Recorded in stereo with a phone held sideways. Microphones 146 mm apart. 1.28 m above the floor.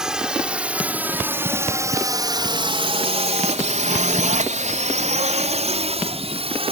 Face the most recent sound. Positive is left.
turn(degrees=-40)  # may be behind; listen again after turning